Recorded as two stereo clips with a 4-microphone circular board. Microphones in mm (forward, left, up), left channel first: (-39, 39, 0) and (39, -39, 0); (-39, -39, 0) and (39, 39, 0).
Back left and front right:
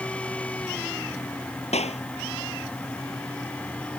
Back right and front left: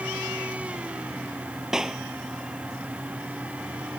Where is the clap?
130° left.